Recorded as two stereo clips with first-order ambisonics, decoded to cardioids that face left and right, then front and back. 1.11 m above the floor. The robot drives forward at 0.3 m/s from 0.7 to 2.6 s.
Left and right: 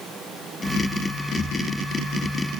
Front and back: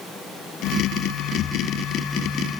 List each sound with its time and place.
Only background noise.